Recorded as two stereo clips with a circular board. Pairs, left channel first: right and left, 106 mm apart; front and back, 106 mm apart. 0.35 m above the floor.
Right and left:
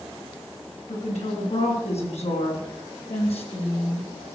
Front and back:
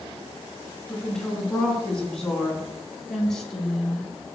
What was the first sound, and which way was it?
A woman speaking, 85° right.